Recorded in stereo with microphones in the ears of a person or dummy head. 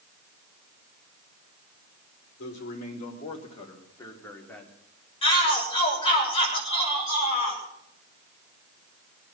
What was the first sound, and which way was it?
A man speaking, 50° left (ahead or behind).